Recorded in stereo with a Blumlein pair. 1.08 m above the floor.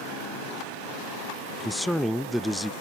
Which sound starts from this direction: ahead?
A man speaking, at 1.6 s.